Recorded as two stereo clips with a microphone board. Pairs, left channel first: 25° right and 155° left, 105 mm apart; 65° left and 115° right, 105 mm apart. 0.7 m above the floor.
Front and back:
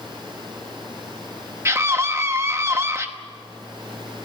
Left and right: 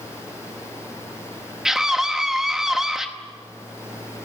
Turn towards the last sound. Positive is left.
turn(degrees=165)